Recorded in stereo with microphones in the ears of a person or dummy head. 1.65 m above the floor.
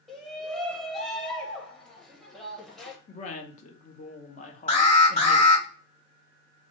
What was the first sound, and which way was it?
A shout, 5° left (ahead or behind).